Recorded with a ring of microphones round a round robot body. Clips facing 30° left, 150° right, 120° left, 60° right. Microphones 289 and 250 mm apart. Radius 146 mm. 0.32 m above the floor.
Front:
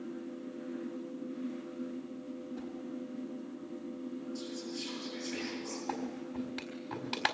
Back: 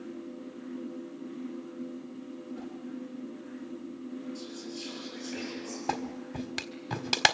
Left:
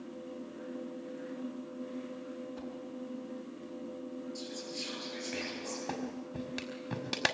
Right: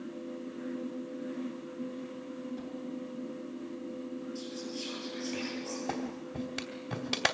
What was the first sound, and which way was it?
A whoosh, 105° left.